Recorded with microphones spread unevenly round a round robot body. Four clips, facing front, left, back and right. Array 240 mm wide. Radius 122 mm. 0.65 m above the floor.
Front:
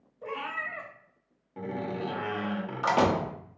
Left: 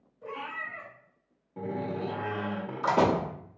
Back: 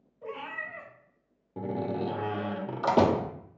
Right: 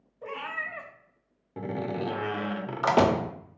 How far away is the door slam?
About 0.7 m.